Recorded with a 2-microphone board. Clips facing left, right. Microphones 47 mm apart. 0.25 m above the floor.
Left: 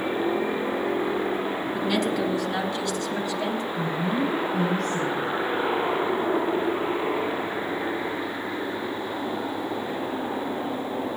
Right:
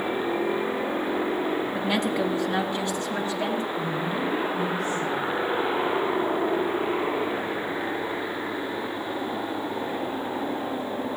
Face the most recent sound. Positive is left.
turn(degrees=60)  # may be behind; listen again after turning